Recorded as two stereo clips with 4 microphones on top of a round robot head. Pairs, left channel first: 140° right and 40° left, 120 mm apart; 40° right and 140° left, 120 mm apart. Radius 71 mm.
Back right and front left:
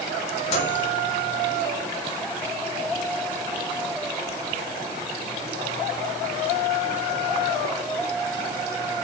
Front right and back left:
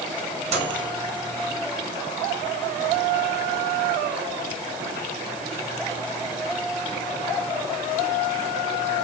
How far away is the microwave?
About 7 m.